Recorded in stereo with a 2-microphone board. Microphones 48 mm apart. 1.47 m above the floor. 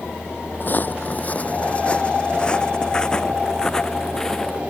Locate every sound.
0.6 s footsteps: 40° left (ahead or behind); by 4.6 s 10° left (ahead or behind)